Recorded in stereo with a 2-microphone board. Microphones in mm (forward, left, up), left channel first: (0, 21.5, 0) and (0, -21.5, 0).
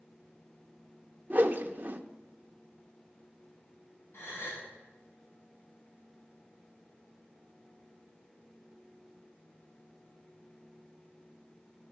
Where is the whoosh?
45° right (ahead or behind), 0.6 m.